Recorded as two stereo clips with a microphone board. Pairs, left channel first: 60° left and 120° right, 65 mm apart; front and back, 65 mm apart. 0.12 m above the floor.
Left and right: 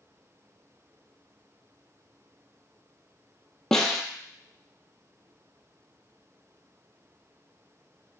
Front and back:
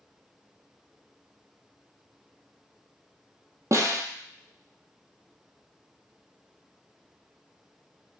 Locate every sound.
3.7 s a snare drum: 145° left, 0.6 m